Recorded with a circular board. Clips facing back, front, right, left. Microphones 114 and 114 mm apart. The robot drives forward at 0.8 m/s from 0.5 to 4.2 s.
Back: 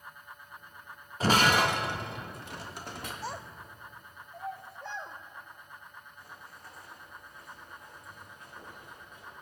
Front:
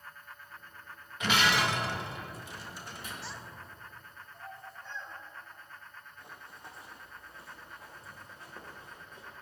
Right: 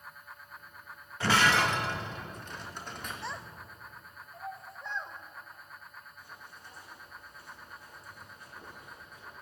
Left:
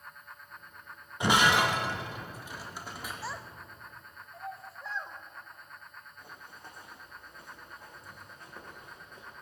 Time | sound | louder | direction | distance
1.2 | breaking glass | back 4 dB, left 1 dB | 150° left | 1.0 m
3.2 | a child speaking | back 5 dB, even | 175° left | 0.6 m
6.2 | running footsteps | front 2 dB, left 3 dB | 65° left | 3.5 m